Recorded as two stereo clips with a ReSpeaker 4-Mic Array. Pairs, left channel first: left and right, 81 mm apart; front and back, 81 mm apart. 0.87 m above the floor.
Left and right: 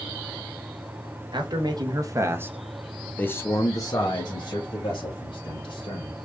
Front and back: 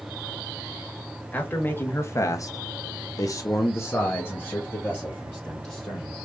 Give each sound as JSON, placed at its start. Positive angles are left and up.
{"t": 1.3, "sound": "a man speaking", "azimuth_deg": -70, "distance_m": 1.1}